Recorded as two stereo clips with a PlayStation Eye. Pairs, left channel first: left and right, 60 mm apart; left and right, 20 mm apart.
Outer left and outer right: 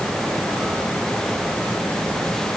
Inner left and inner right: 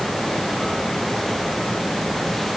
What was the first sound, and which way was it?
Only background noise.